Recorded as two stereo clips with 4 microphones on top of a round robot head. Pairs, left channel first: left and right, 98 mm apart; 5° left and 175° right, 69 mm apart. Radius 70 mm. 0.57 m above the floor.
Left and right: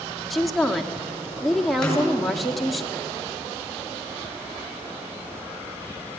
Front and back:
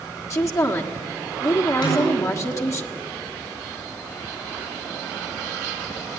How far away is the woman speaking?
About 1.5 m.